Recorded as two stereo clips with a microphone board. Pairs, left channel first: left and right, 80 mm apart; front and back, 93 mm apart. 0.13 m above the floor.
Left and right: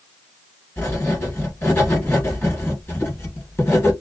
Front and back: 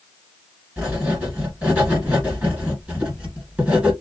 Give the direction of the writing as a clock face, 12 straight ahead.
8 o'clock.